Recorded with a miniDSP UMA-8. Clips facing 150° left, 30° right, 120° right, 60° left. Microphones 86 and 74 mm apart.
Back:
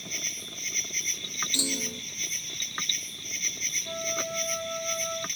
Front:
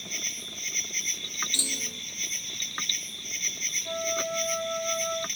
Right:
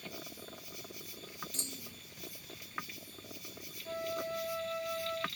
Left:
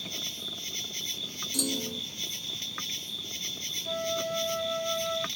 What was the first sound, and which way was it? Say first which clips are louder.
An insect: even, left 5 dB; 60° left.